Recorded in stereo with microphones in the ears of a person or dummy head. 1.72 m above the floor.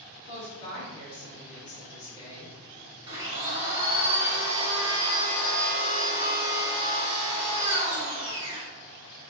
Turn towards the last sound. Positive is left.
turn(degrees=-25)  # may be behind; listen again after turning